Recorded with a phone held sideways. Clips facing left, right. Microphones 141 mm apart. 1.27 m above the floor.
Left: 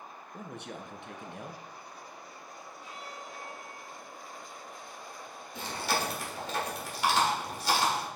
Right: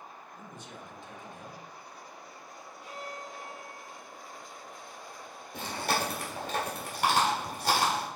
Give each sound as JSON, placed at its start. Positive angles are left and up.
{"t": 0.3, "sound": "a man speaking", "side_deg": 70, "distance_m": 0.8}
{"t": 2.8, "sound": "a violin", "side_deg": -60, "distance_m": 2.5}
{"t": 5.5, "sound": "chewing", "side_deg": -55, "distance_m": 1.8}